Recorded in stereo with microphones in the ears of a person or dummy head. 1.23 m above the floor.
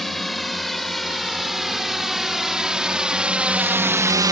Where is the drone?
10° left (ahead or behind); by 4.3 s 10° right (ahead or behind).